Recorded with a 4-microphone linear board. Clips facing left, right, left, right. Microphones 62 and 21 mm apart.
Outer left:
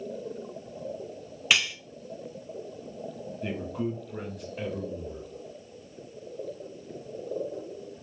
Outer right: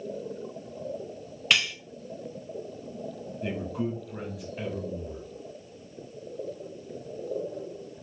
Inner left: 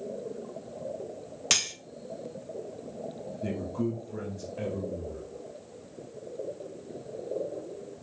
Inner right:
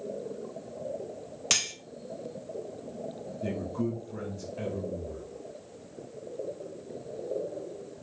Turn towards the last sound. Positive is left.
turn(degrees=0)  # may be behind; listen again after turning